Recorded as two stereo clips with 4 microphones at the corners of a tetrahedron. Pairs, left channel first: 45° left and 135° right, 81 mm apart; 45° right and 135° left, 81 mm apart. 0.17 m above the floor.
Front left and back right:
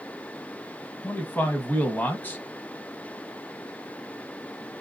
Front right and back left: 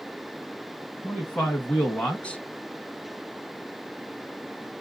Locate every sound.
1.0 s a man speaking: 10° left, 1.1 m